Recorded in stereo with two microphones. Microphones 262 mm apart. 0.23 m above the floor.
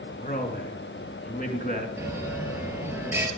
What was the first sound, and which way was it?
A man speaking, 30° left (ahead or behind).